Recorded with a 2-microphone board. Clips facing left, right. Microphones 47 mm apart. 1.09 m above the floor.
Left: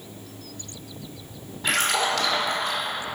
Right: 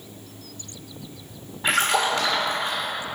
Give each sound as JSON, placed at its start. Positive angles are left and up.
{"t": 1.6, "sound": "a splash", "side_deg": -25, "distance_m": 1.8}